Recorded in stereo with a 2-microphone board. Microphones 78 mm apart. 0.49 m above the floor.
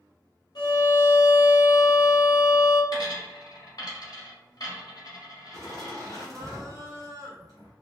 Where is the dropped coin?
55° left (ahead or behind), 0.8 m.